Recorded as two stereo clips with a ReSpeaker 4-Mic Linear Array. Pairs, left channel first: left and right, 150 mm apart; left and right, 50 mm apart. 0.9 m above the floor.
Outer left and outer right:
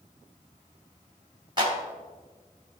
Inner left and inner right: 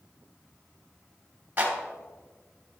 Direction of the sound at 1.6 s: 30° right (ahead or behind).